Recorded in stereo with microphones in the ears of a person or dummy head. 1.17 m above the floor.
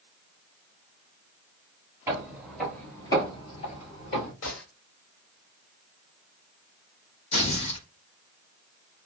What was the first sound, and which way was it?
Footsteps, 10° right (ahead or behind).